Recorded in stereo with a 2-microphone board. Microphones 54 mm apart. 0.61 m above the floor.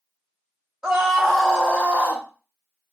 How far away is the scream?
About 1.0 m.